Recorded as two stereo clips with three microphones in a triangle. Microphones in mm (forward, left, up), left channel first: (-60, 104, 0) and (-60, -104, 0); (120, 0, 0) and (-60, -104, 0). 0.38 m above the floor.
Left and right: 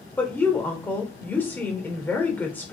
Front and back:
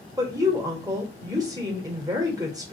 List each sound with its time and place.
0.2 s a woman speaking: 160° left, 0.8 m